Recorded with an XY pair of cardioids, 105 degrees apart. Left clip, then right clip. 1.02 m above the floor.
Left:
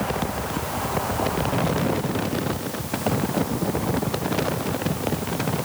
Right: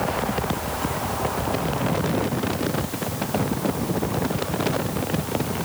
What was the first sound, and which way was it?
Only background noise.